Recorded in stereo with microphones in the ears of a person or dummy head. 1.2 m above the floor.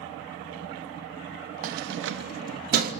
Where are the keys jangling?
50° right (ahead or behind), 1.0 m.